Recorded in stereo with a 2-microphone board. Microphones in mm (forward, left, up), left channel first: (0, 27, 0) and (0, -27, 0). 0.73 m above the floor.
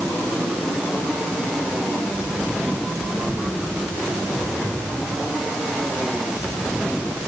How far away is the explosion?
No explosion in this recording.